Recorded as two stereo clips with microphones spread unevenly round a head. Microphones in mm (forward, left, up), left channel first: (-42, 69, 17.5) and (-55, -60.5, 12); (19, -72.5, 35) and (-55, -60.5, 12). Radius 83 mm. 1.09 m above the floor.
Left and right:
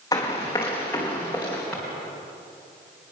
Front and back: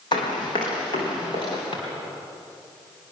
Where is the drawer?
Straight ahead, 4.5 m.